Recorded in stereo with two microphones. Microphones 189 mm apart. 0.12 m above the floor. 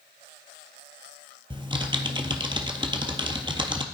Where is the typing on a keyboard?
25° right (ahead or behind), 0.7 m.